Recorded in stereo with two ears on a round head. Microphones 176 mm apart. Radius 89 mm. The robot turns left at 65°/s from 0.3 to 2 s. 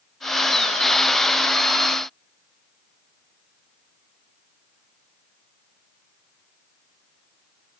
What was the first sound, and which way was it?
Only background noise.